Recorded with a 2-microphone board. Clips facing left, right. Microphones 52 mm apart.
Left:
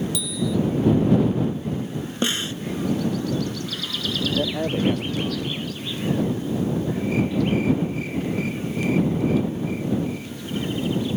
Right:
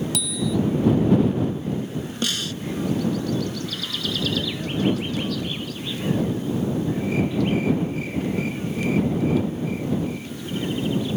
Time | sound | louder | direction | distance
0.1 | a bicycle bell | even | 65° right (ahead or behind) | ?
2.2 | a snare drum | left 3 dB | 30° left (ahead or behind) | ?
4.4 | a man speaking | left 2 dB | 60° left (ahead or behind) | ?